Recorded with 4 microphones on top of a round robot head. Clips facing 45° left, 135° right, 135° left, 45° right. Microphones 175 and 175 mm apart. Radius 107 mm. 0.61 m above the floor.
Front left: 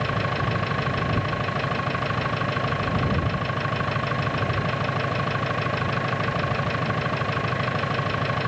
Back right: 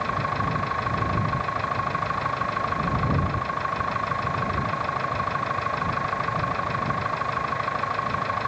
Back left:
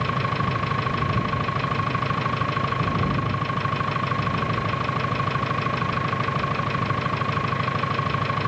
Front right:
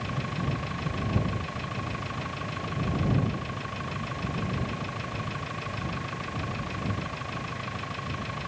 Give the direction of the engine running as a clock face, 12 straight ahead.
8 o'clock.